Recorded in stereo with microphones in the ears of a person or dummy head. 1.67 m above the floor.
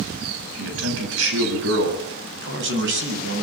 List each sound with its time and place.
0.6 s a man speaking: 80° right, 8.5 m; by 3.4 s 60° right (ahead or behind), 10.5 m